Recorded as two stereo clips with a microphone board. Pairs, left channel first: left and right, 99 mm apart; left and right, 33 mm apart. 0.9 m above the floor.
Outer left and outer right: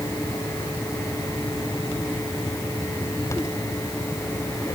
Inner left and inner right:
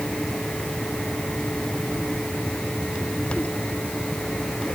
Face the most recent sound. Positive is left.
No sound to turn to.